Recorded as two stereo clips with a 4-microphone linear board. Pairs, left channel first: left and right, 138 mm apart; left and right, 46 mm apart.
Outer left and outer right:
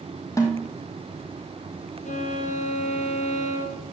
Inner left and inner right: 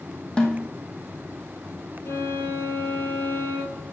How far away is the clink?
I don't hear a clink.